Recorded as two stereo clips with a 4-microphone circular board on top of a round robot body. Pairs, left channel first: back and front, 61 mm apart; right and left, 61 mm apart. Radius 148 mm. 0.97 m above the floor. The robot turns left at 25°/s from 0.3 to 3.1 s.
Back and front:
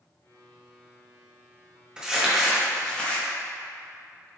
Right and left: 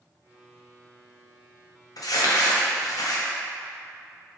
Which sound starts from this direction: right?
Crumpling, at 2.0 s.